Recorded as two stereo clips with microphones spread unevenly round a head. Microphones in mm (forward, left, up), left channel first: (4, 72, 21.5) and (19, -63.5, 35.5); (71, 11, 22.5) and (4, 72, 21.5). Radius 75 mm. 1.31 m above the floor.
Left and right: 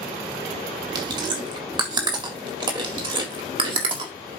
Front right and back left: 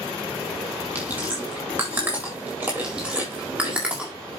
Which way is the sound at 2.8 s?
140° right.